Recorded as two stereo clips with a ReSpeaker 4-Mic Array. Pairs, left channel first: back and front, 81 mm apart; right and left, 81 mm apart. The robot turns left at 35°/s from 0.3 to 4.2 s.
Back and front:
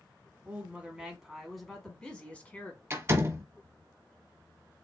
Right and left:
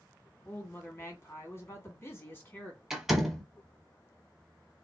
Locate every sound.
0.5 s a woman speaking: 50° right, 1.8 m; by 2.8 s 135° right, 1.8 m
2.9 s a door slam: 15° left, 1.2 m; by 3.4 s 5° right, 1.2 m